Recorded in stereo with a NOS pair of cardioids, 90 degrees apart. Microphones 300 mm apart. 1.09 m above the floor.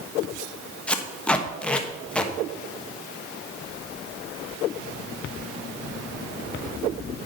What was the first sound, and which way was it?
Tape being pulled, 5° left.